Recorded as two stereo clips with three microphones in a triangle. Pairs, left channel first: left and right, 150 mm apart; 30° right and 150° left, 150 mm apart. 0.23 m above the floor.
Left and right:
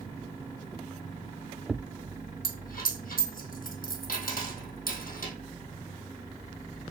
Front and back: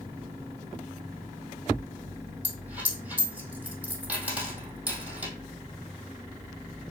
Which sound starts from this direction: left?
A dropped coin, at 2.4 s.